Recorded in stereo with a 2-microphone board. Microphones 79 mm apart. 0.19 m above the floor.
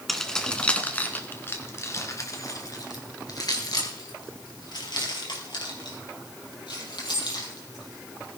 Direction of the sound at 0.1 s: Centre (ahead or behind).